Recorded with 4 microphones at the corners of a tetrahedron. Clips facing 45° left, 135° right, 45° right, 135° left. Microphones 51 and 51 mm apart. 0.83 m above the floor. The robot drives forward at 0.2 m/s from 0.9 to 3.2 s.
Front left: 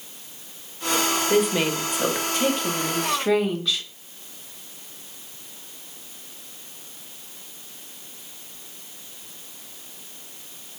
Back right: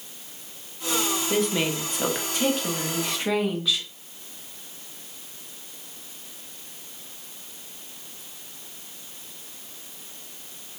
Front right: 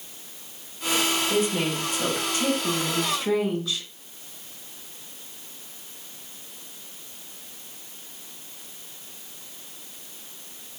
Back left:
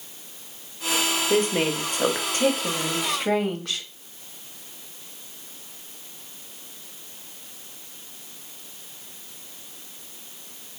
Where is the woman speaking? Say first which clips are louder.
Front left 3 dB, back left 2 dB; 120° left, 0.9 m; by 3.9 s 140° left, 1.1 m.